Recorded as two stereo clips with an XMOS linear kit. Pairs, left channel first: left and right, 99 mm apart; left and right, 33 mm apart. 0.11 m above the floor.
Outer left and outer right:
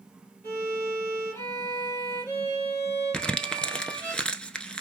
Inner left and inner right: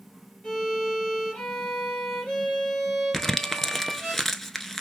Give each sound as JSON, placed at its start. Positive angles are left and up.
{"t": 0.4, "sound": "a violin", "side_deg": 25, "distance_m": 3.5}
{"t": 3.1, "sound": "crumpling", "side_deg": 10, "distance_m": 0.6}